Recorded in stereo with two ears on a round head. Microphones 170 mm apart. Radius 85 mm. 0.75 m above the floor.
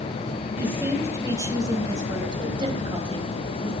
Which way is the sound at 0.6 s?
10° right (ahead or behind).